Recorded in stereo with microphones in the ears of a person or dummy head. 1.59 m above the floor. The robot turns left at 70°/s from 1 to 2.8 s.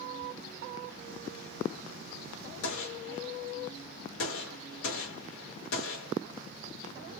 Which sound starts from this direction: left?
A gunshot, at 2.6 s.